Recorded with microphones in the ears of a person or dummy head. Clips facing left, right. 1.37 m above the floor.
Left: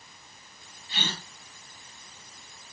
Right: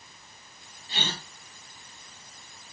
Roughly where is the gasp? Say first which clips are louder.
Right 1 dB; right.